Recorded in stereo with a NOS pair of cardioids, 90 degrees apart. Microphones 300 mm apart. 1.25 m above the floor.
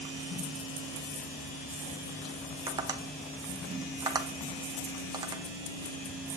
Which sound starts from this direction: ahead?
Tapping, at 2.7 s.